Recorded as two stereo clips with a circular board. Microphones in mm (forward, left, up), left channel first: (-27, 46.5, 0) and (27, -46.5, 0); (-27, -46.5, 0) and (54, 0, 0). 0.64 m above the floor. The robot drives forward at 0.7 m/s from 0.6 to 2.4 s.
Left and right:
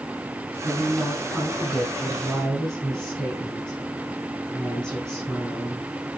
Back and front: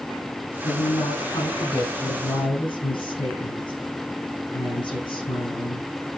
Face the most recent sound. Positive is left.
turn(degrees=-155)